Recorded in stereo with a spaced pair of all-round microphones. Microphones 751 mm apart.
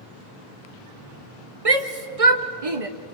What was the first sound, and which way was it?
A shout, 50° right (ahead or behind).